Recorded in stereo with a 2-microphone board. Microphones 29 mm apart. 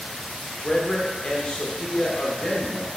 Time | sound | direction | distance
0.6 | a man speaking | 25° left (ahead or behind) | 0.9 m